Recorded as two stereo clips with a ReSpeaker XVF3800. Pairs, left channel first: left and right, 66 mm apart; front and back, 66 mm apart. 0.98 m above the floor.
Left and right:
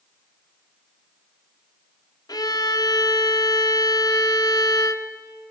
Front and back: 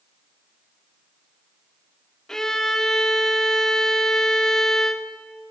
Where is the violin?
85° left, 1.4 m.